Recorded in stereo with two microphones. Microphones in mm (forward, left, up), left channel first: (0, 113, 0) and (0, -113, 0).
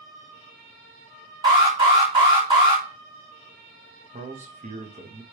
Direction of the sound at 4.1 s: 35° right (ahead or behind).